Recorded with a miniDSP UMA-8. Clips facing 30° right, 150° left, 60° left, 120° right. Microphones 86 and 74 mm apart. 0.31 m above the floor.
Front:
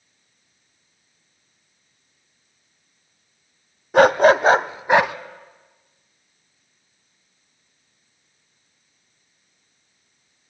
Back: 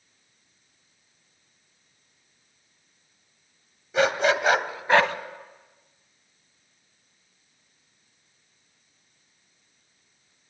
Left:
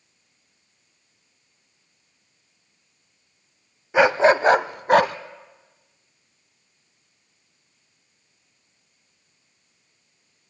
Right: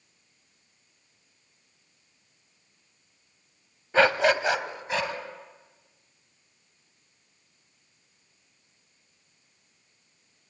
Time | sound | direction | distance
3.9 | a dog barking | 15° right | 0.6 m